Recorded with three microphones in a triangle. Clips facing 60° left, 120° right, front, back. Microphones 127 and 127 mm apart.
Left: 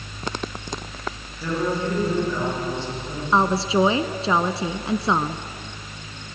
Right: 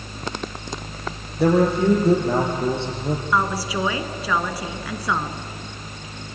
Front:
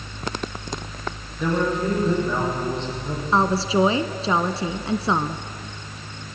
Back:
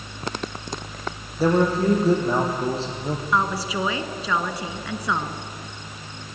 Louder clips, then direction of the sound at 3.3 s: Left 6 dB, front 6 dB; 25° left.